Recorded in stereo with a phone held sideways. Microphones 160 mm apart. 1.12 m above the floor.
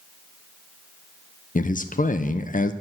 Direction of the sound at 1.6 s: 55° left (ahead or behind).